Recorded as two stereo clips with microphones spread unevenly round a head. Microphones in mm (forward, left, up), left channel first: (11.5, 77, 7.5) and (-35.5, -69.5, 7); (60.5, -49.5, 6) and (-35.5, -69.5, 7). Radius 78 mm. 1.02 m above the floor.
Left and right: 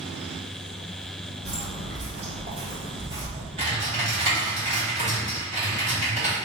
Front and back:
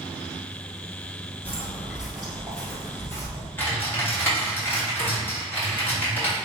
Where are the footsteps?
100° right, 1.7 m; by 3.5 s 30° right, 1.4 m.